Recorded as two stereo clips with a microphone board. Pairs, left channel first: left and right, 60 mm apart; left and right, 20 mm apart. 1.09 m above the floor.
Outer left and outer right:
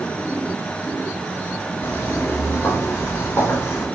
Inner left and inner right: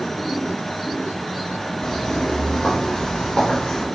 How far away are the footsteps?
About 7 m.